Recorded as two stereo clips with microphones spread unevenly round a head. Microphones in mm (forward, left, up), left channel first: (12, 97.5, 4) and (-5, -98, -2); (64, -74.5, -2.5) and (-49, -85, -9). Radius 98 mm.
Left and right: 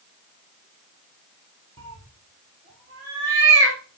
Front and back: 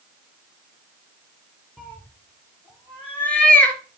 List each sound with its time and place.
1.8 s a cat meowing: 70° right, 2.5 m